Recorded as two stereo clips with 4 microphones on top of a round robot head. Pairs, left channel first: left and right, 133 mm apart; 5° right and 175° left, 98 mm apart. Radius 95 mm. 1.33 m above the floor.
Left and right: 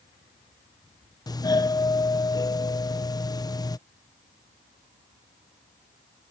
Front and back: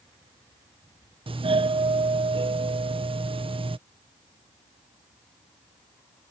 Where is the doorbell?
150° left.